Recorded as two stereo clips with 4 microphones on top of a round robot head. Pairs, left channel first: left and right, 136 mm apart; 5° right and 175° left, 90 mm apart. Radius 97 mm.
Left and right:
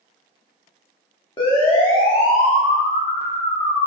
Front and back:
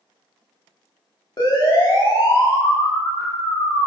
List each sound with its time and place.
1.4 s a siren: 30° left, 5 m